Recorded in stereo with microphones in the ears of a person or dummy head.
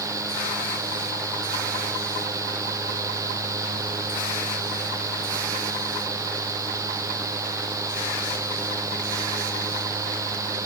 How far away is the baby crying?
No baby crying in this recording.